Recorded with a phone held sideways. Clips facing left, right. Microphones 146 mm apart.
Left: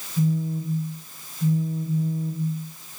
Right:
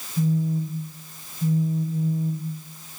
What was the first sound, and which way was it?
A phone buzzing, 5° right (ahead or behind).